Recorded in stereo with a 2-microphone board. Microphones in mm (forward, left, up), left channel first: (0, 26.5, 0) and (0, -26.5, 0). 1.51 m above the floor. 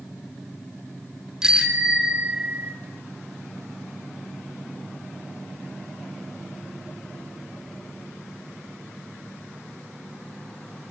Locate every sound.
1.4 s a bicycle bell: 15° right (ahead or behind), 3 m; by 2.7 s 35° right (ahead or behind), 2.5 m